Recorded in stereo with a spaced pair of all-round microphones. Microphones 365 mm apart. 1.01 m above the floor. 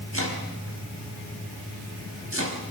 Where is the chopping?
40° right (ahead or behind), 4.5 m.